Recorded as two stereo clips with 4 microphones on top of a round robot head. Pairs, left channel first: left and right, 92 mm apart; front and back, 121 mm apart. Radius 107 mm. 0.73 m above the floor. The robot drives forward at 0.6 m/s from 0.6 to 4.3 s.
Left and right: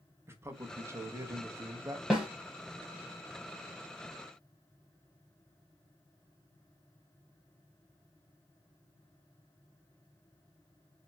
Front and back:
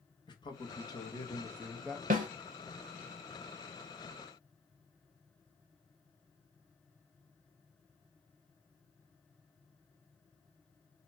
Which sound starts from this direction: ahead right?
A man speaking, at 0.3 s.